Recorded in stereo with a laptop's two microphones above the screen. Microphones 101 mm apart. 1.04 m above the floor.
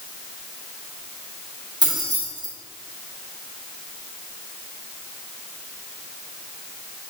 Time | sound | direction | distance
1.8 | keys jangling | 50° right (ahead or behind) | 2.5 m